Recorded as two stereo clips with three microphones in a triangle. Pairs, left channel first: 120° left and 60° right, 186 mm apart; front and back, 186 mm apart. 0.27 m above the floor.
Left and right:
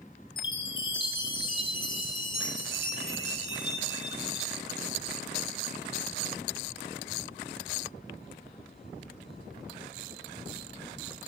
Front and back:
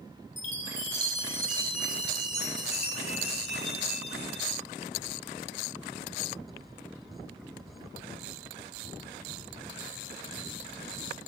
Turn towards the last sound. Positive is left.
turn(degrees=55)